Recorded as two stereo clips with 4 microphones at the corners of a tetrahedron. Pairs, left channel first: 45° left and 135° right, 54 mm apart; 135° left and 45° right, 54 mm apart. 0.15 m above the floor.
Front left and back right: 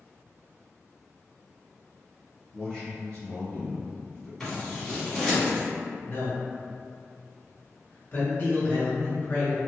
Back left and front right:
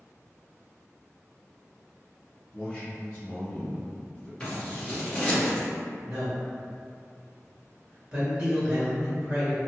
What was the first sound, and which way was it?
A man speaking, 110° left.